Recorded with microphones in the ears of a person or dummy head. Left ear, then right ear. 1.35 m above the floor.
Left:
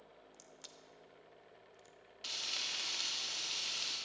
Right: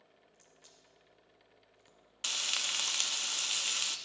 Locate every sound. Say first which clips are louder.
0.3 s a crack: left 6 dB; 55° left (ahead or behind), 0.8 m
2.2 s frying: right 5 dB; 50° right (ahead or behind), 0.5 m